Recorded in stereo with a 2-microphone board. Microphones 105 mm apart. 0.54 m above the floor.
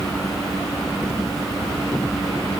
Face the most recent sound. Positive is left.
No sound to turn to.